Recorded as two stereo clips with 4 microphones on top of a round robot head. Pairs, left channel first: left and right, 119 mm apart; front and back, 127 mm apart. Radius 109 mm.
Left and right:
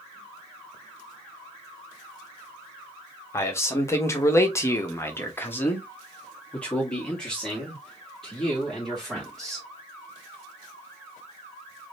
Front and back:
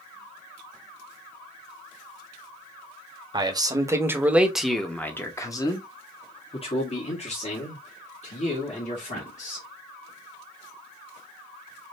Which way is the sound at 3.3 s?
145° left.